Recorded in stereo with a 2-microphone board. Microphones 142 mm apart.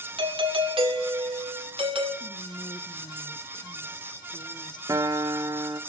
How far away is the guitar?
About 0.8 m.